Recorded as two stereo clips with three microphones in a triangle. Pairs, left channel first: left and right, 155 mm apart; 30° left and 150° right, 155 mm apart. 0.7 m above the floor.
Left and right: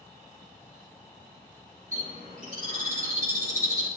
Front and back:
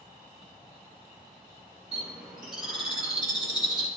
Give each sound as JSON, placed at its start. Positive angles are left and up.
{"t": 1.9, "sound": "a bird", "azimuth_deg": -65, "distance_m": 6.5}